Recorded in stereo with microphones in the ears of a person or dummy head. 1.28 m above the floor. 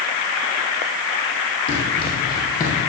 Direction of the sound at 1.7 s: 40° left (ahead or behind).